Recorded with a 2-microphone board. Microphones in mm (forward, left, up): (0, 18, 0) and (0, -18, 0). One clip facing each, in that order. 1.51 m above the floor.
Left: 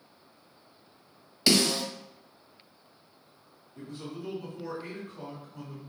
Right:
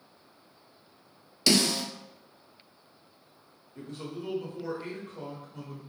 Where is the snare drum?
10° left (ahead or behind), 0.7 m.